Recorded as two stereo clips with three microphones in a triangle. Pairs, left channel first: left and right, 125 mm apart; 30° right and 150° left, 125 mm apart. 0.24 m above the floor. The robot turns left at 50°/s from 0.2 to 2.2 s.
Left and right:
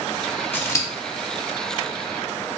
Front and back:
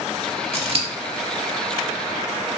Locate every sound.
0.5 s scissors: 155° left, 0.6 m; by 0.9 s 135° left, 0.6 m